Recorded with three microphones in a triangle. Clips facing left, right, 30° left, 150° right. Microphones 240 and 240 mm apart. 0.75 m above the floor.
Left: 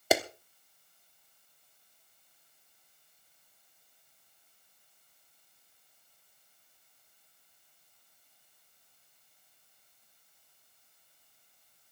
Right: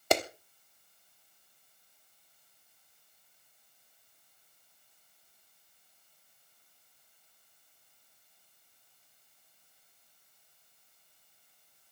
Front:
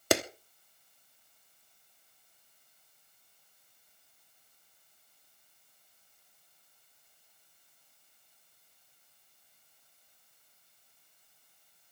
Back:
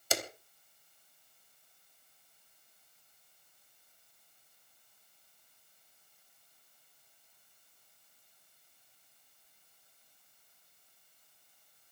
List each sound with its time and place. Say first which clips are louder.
0.1 s a clap: left 1 dB, front 10 dB; 5° left, 1.1 m